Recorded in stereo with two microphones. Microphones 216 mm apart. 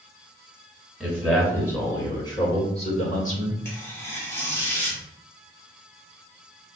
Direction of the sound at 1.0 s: Centre (ahead or behind).